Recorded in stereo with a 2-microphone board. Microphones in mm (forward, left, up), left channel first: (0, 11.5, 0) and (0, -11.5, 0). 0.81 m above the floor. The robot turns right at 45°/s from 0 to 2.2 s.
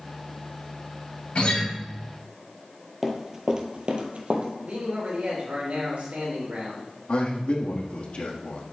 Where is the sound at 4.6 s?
80° right, 3.5 m.